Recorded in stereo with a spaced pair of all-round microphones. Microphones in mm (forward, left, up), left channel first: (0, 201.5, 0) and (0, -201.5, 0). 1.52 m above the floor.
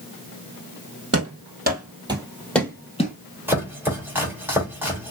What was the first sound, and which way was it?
Running footsteps, 35° right (ahead or behind).